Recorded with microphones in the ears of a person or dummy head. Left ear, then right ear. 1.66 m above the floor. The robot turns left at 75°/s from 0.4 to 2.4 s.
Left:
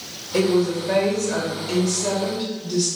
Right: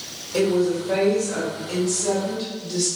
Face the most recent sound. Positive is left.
turn(degrees=-5)